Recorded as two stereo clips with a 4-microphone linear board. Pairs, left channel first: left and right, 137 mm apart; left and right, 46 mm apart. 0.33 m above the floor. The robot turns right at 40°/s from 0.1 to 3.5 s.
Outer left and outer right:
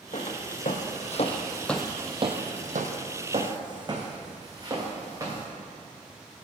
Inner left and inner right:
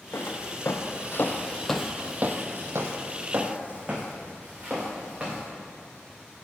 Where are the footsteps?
55° left (ahead or behind), 1.2 m; by 5.5 s 25° right (ahead or behind), 2 m.